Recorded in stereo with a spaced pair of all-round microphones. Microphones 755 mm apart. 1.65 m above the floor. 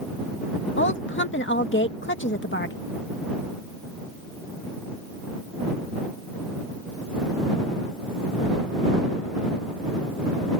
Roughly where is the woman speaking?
Centre.